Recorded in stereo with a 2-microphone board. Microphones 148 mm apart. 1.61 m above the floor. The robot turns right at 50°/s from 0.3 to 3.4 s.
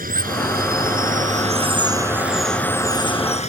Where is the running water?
105° right; by 3.5 s 50° left.